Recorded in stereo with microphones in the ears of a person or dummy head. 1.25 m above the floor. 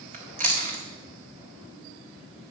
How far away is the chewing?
About 1.6 m.